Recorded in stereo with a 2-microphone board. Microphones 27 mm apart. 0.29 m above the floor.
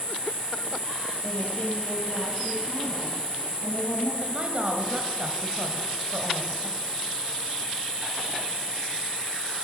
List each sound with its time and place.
0.0 s an insect: 70° left (ahead or behind), 6 m
1.2 s a woman speaking: 60° left (ahead or behind), 7 m
4.2 s a woman speaking: 35° right (ahead or behind), 1.4 m